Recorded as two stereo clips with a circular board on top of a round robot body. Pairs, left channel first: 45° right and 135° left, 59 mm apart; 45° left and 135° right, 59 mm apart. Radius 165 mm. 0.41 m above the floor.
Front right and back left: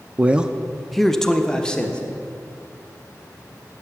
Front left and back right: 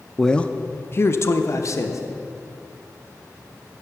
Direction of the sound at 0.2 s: 125° left.